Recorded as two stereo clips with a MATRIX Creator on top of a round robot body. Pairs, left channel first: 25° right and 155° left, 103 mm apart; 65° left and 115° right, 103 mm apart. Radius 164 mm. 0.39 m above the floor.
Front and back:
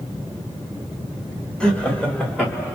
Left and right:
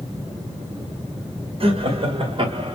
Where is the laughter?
110° right, 2 m; by 2.8 s 130° right, 1.6 m.